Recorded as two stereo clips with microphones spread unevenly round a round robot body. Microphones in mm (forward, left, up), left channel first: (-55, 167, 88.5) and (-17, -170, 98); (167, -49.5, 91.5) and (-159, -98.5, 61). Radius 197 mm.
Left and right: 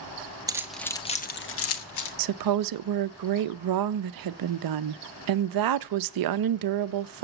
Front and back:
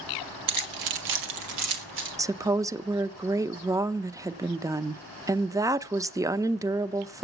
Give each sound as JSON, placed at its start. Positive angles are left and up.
{"t": 0.5, "sound": "keys jangling", "azimuth_deg": -165, "distance_m": 1.3}
{"t": 2.2, "sound": "a woman speaking", "azimuth_deg": -95, "distance_m": 0.6}